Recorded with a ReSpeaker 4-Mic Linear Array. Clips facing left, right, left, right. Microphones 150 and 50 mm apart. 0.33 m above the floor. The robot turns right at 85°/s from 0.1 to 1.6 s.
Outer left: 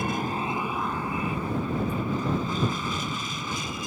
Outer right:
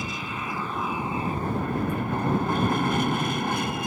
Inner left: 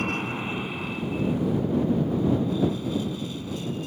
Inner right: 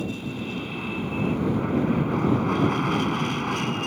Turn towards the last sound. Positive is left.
turn(degrees=-110)